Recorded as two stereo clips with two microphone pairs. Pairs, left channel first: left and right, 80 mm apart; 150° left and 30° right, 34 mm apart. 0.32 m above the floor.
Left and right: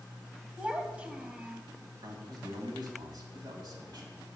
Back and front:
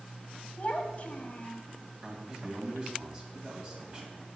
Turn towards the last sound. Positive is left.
turn(degrees=-95)